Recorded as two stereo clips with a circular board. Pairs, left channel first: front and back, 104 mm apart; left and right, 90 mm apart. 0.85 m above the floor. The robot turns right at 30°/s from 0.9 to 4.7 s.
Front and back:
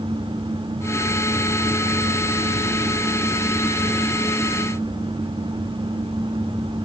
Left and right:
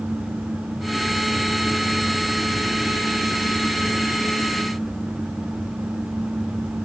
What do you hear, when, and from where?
Only background noise.